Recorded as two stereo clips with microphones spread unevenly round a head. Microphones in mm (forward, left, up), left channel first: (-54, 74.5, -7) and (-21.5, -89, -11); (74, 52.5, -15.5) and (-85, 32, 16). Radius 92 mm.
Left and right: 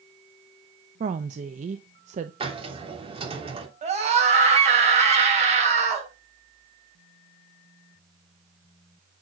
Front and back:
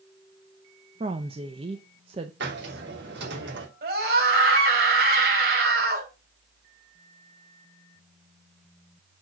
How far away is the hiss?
About 3 m.